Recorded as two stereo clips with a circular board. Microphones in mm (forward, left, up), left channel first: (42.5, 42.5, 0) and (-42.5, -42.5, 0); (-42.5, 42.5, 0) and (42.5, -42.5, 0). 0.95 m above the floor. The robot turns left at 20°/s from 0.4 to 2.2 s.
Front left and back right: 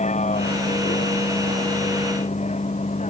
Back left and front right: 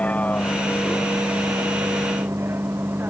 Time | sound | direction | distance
0.0 | a vehicle | 55° left | ?